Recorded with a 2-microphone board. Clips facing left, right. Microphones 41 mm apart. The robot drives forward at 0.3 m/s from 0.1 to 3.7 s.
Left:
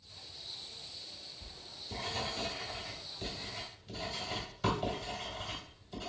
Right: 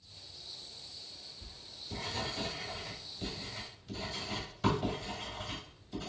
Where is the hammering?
I don't hear hammering.